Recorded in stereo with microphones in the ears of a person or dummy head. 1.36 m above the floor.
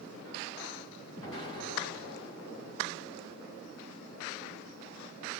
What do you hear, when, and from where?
1.2 s an explosion: 30° left (ahead or behind), 1.1 m